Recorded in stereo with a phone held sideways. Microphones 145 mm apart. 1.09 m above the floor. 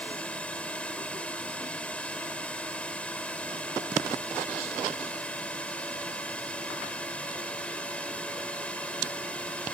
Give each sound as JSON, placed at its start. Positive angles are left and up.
{"t": 0.0, "sound": "a drone", "side_deg": 10}